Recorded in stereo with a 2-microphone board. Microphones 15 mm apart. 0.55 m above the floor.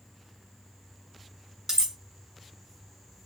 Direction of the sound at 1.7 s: 40° right (ahead or behind).